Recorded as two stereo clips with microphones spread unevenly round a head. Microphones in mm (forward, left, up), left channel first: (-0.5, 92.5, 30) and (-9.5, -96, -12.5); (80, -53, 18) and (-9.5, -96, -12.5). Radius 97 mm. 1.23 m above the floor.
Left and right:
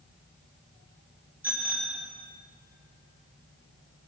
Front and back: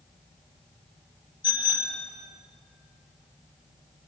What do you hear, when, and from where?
1.4 s a bicycle bell: 10° right, 2.5 m